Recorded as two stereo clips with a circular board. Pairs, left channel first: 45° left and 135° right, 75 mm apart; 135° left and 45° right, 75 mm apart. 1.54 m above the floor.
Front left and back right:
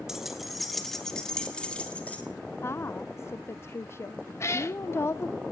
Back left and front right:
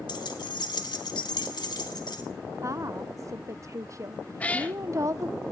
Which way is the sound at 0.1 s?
140° left.